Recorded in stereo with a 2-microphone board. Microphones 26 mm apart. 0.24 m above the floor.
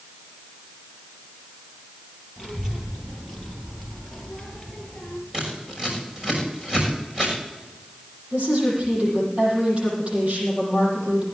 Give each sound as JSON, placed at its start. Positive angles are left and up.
{"t": 2.4, "sound": "a child speaking", "side_deg": -20, "distance_m": 5.0}
{"t": 5.3, "sound": "scissors", "side_deg": -15, "distance_m": 6.5}
{"t": 8.3, "sound": "a woman speaking", "side_deg": -45, "distance_m": 8.0}